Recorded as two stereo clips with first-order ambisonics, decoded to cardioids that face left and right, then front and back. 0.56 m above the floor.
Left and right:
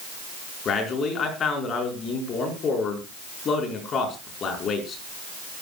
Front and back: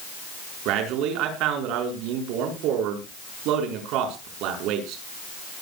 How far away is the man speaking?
About 5.5 m.